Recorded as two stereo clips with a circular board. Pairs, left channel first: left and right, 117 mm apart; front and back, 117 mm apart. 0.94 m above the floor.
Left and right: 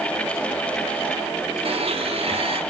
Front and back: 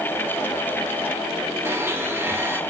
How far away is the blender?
About 1.1 m.